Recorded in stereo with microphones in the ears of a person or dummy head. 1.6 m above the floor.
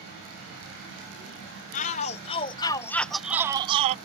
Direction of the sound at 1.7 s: 40° left (ahead or behind).